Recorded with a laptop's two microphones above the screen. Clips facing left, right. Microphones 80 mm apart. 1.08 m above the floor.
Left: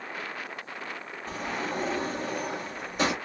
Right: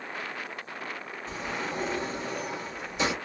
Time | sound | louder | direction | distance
1.3 | a sliding door | left 2 dB | 50° left (ahead or behind) | 1.2 m